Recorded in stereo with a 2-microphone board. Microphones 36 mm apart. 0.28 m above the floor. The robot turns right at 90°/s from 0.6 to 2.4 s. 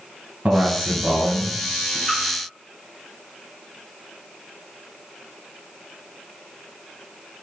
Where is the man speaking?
90° right, 1.7 m; by 2.0 s 30° left, 1.7 m.